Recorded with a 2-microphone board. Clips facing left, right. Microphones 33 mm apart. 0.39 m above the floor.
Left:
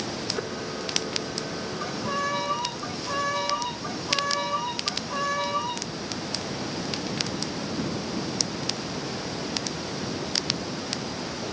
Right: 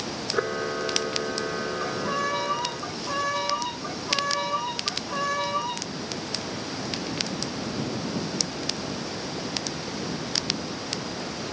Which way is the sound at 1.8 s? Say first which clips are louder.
Left 1 dB; centre (ahead or behind).